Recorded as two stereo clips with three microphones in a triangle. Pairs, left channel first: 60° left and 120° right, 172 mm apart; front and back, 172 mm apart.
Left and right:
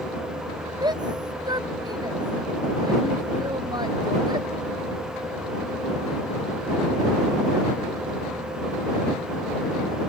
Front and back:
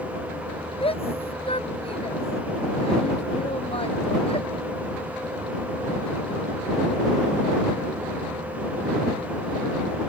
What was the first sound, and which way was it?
A shout, 55° right.